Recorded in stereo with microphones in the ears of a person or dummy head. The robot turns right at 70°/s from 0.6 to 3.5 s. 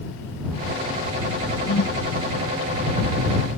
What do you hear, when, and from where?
1.6 s a whoosh: 80° left; by 2.0 s 70° left (ahead or behind)